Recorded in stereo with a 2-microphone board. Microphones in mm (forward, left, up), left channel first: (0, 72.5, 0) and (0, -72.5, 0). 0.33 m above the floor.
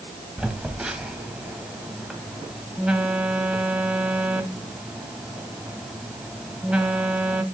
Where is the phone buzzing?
5° right (ahead or behind), 1.5 m.